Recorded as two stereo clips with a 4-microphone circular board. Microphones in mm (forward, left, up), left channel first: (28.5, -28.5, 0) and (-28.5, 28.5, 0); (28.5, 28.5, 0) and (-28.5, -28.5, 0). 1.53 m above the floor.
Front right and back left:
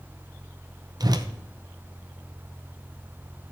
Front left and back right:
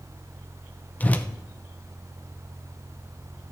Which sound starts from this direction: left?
A whoosh, at 1.0 s.